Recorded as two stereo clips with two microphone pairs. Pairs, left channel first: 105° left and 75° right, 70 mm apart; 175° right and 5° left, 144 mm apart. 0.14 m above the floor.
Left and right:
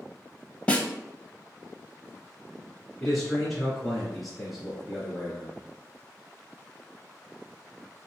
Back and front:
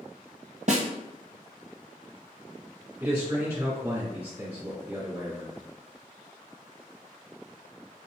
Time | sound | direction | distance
0.7 | a snare drum | 35° left | 0.6 m
3.0 | a man speaking | 20° left | 1.7 m